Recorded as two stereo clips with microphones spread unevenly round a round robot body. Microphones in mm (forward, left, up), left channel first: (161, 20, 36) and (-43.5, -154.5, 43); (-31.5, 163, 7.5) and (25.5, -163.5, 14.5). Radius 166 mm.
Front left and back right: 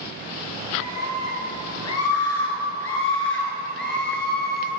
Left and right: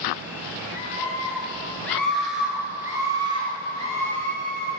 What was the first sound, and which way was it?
A scream, 30° left.